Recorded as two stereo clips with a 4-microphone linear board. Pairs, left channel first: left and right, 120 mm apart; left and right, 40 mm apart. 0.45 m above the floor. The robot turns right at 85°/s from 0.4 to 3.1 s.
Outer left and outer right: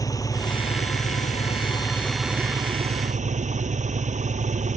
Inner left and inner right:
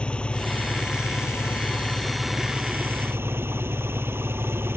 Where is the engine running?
30° left; by 4.8 s 100° right.